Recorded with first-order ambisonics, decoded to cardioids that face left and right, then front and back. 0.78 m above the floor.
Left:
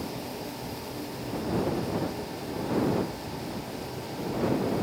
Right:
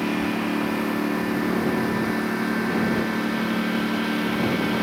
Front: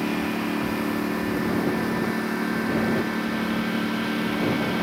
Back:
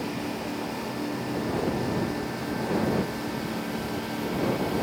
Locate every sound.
0.0 s a lawn mower: 60° right